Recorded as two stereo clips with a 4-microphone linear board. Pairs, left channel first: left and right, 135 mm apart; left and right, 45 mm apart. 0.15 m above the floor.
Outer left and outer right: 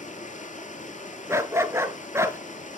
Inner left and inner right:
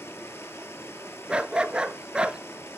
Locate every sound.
0.0 s running water: 70° left (ahead or behind), 1.4 m
1.3 s a dog barking: 20° right (ahead or behind), 0.7 m